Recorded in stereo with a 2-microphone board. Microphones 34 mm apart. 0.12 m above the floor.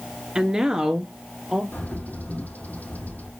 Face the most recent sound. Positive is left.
turn(degrees=50)  # may be behind; listen again after turning